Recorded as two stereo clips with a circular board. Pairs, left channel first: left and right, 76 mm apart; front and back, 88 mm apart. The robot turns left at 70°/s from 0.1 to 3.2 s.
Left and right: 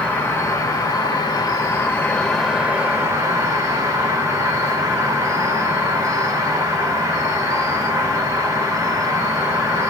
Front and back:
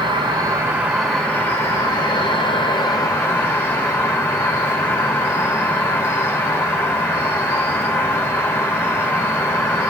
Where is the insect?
165° left, 1.0 m; by 9.9 s 55° right, 1.0 m.